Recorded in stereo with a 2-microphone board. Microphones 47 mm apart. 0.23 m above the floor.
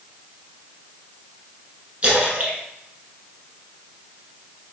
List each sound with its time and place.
2.0 s a splash: 25° right (ahead or behind), 1.2 m